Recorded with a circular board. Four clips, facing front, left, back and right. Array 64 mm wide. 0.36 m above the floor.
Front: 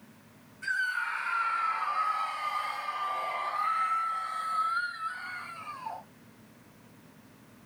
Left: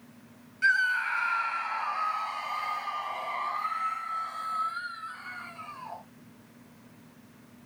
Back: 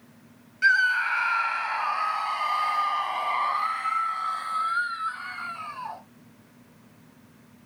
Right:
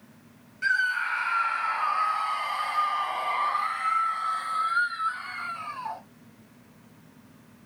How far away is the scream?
About 2 m.